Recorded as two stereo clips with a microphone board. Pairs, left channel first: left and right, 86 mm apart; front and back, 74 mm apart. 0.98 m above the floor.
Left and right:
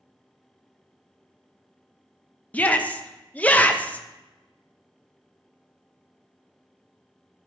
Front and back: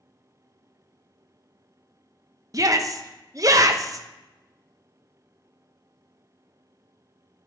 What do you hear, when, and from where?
2.5 s a shout: 155° left, 0.8 m